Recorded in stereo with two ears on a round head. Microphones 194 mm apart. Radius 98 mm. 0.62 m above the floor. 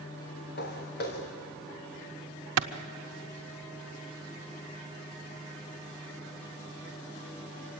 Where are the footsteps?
45° left (ahead or behind), 3.5 m.